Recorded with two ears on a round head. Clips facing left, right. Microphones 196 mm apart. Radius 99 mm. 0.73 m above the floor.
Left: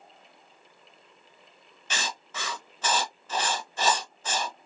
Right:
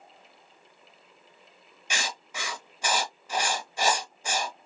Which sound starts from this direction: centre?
Writing, at 1.9 s.